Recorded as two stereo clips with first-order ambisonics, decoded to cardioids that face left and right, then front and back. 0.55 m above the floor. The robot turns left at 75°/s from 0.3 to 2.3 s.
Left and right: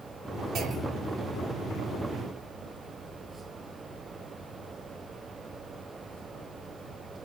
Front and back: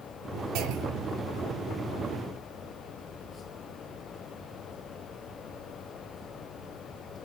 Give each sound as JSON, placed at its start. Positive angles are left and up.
{"t": 0.6, "sound": "a clunk", "azimuth_deg": -145, "distance_m": 1.6}